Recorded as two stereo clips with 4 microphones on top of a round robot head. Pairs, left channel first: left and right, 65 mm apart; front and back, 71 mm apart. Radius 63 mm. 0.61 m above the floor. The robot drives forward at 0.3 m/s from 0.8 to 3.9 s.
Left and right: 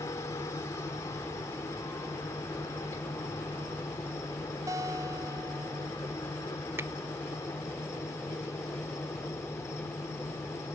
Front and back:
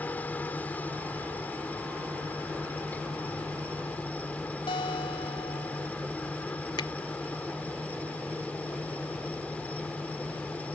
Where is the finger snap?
30° right.